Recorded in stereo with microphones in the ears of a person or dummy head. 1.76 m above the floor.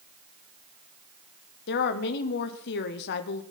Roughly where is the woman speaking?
Left.